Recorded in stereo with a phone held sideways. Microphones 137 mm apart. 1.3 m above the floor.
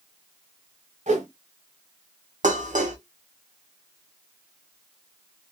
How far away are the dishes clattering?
About 0.6 m.